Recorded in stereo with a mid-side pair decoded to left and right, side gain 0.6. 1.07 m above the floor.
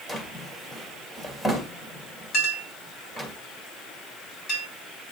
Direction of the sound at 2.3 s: 55° left.